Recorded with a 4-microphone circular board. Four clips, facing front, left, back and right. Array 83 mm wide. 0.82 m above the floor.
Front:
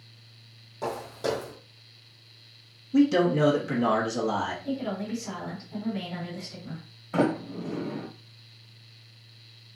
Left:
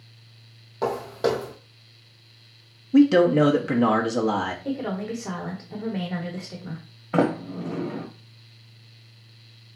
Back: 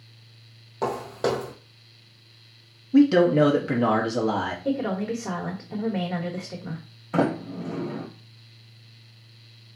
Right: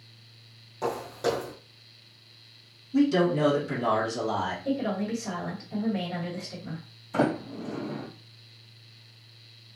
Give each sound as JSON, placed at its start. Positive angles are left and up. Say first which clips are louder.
{"t": 0.8, "sound": "footsteps", "louder": "left 4 dB, back 5 dB", "azimuth_deg": 145, "distance_m": 1.4}
{"t": 2.9, "sound": "a man speaking", "louder": "left 7 dB, back 5 dB", "azimuth_deg": 120, "distance_m": 1.2}
{"t": 4.7, "sound": "a woman speaking", "louder": "even, back 5 dB", "azimuth_deg": 160, "distance_m": 1.7}
{"t": 7.1, "sound": "a sliding door", "louder": "left 4 dB, back 1 dB", "azimuth_deg": 100, "distance_m": 1.4}